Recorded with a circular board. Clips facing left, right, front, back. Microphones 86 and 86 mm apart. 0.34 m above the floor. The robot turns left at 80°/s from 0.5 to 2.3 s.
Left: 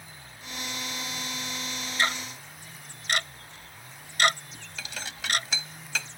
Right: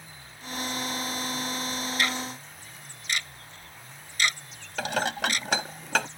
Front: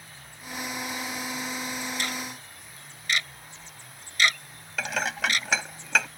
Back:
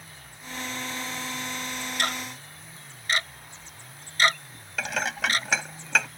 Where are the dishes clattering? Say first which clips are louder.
Right 12 dB, even; 90° right.